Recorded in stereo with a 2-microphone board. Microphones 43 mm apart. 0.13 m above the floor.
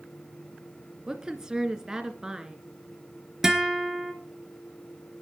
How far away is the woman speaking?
About 2 m.